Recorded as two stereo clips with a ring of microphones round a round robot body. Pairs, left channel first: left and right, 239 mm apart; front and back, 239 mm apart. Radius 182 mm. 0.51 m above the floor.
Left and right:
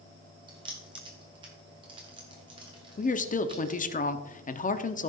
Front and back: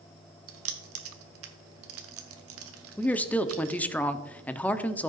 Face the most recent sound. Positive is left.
turn(degrees=80)